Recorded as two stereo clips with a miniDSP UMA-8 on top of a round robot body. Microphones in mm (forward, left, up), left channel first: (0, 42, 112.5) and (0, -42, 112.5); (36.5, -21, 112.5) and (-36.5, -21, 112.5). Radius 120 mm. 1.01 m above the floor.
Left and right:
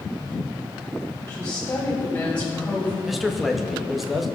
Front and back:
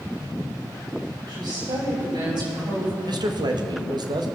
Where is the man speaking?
Straight behind, 1.8 m.